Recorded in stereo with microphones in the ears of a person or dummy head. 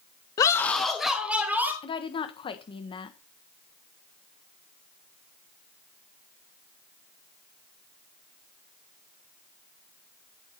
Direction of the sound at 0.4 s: 20° left (ahead or behind).